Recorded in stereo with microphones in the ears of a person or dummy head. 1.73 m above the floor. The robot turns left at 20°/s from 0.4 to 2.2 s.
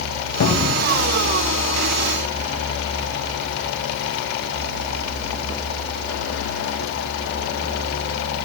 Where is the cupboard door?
55° left (ahead or behind), 1.4 m; by 0.9 s 60° left (ahead or behind), 1.4 m.